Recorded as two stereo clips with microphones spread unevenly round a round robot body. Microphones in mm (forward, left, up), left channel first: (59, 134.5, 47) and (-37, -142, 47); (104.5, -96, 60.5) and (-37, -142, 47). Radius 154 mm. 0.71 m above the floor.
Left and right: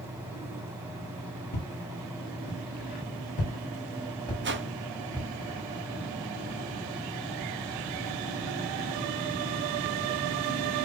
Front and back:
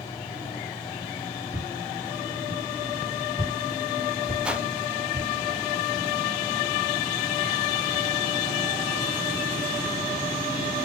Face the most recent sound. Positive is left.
turn(degrees=-90)